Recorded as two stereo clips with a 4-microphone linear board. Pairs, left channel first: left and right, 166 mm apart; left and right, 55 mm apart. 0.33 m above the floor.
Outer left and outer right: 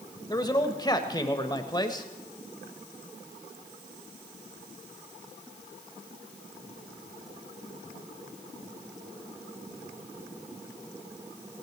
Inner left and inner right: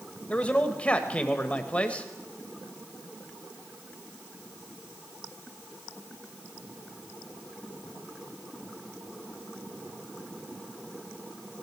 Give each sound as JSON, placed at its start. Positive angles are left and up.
{"t": 0.3, "sound": "a man speaking", "side_deg": 25, "distance_m": 1.3}